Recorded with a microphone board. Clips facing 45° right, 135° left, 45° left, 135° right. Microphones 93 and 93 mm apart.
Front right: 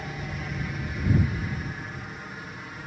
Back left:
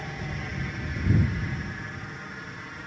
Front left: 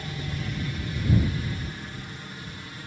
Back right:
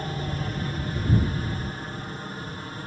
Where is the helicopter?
135° right.